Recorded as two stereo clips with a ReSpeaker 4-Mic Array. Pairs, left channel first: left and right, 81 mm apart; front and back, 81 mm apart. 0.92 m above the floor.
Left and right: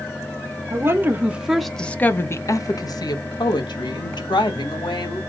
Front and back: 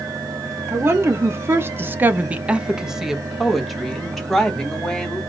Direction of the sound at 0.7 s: 130° right.